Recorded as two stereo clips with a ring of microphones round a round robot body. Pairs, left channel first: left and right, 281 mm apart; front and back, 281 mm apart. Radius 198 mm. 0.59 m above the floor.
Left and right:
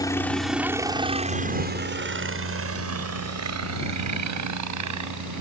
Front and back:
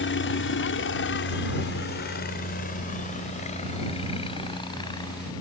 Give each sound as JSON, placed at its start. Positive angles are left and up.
{"t": 0.0, "sound": "a helicopter", "azimuth_deg": 15}